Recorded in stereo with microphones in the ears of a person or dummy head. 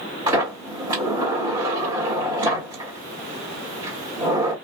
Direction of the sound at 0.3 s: 30° right (ahead or behind).